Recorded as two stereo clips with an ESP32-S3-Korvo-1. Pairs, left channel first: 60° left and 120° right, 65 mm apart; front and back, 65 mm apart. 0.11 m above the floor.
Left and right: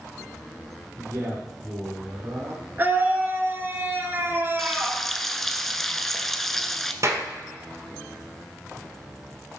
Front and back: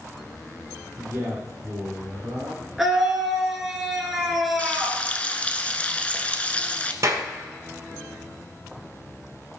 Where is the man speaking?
135° right, 3.5 m.